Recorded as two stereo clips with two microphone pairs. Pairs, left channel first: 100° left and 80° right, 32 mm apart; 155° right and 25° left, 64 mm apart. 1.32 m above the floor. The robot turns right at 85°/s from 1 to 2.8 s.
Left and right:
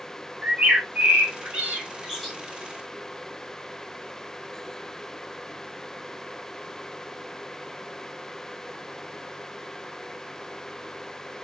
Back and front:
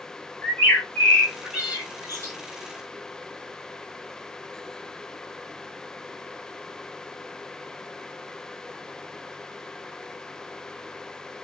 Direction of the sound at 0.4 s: 90° right.